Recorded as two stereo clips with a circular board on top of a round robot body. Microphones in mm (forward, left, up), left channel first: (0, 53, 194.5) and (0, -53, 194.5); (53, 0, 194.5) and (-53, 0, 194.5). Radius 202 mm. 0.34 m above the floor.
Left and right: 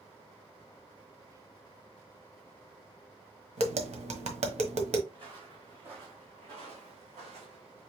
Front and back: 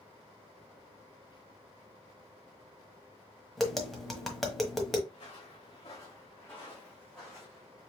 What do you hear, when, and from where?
1.3 s whispering: 35° right, 1.3 m
3.6 s tapping: 90° right, 1.3 m
5.1 s footsteps: 45° right, 2 m; by 7.9 s 95° right, 2 m